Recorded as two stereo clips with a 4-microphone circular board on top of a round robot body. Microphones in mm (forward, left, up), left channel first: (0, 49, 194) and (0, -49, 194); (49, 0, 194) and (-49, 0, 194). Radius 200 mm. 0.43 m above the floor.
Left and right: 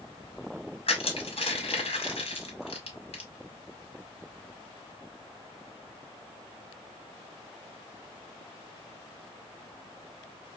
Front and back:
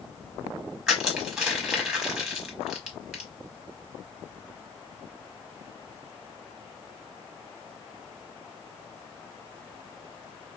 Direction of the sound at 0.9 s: 95° left.